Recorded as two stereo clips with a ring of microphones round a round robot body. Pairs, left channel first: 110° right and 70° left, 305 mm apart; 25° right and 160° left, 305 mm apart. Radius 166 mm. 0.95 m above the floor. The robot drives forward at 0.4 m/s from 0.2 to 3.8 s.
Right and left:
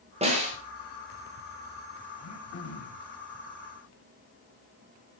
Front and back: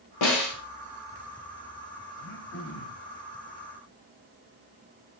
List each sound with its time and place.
0.2 s a snare drum: straight ahead, 4 m
2.2 s throat clearing: 65° right, 2 m; by 3.1 s 75° right, 2 m